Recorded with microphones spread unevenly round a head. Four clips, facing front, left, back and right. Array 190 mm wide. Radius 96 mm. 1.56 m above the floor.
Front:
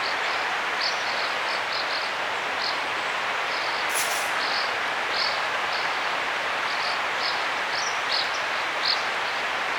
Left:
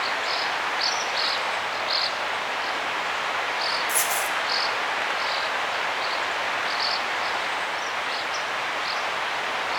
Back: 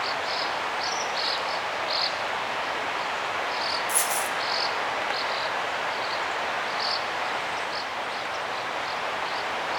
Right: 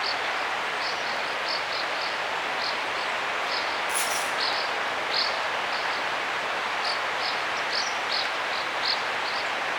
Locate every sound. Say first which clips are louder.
3.9 s a dropped coin: left 2 dB, even; 160° left, 0.8 m